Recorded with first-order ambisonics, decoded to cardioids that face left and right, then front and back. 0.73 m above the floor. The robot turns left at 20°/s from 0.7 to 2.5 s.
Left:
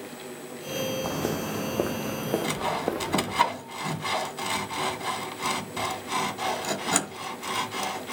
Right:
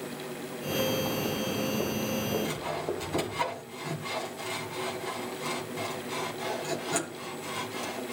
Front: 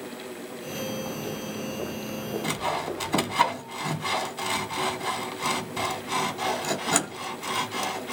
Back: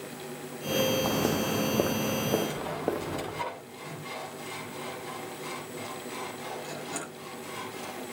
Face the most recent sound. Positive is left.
turn(degrees=35)